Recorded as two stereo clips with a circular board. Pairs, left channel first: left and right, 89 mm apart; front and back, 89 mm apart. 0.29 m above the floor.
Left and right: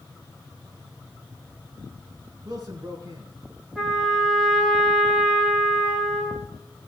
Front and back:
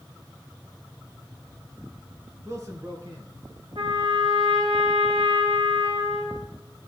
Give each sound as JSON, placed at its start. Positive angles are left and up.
{"t": 2.5, "sound": "a man speaking", "azimuth_deg": -130, "distance_m": 3.0}
{"t": 3.8, "sound": "a trumpet", "azimuth_deg": 175, "distance_m": 5.0}